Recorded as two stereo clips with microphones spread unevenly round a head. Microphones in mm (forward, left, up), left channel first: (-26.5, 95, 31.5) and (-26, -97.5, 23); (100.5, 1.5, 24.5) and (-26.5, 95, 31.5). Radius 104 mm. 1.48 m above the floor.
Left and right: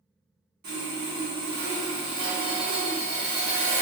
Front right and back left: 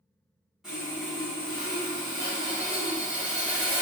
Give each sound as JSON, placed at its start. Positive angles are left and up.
{"t": 0.6, "sound": "sawing", "azimuth_deg": -130, "distance_m": 1.6}